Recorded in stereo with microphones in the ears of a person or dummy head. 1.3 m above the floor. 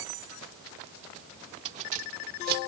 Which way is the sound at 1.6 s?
35° right (ahead or behind).